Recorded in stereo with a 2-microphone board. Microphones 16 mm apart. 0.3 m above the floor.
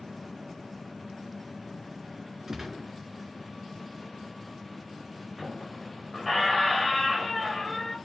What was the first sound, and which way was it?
A gunshot, 25° right (ahead or behind).